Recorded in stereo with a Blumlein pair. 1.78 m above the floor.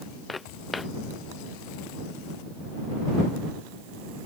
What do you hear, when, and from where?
0.3 s footsteps: 10° left